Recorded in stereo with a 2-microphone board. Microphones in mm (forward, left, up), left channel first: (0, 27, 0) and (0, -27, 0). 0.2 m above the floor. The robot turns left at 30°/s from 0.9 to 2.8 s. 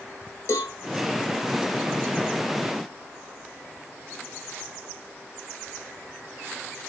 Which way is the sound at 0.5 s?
60° left (ahead or behind).